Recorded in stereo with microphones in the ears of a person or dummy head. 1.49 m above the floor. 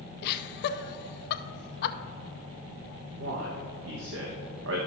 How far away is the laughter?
About 0.6 m.